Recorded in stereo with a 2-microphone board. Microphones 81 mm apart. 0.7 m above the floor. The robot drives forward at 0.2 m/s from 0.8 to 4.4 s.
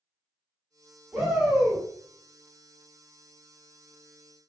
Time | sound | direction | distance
1.1 | a shout | 10° right (ahead or behind) | 1.2 m